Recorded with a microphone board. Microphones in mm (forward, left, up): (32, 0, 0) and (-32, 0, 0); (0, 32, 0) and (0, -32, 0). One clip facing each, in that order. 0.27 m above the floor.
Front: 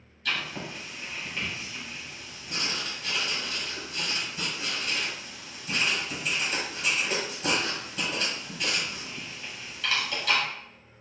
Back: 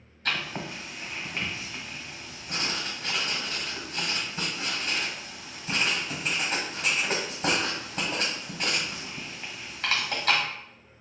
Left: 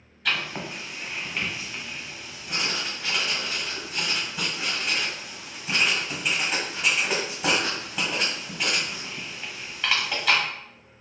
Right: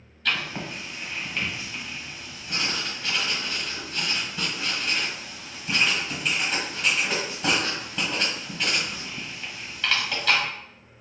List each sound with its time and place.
0.2 s writing: 170° left, 1.2 m